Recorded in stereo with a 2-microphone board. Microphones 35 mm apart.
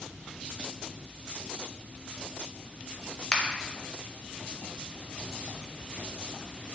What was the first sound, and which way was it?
A finger snap, 25° left (ahead or behind).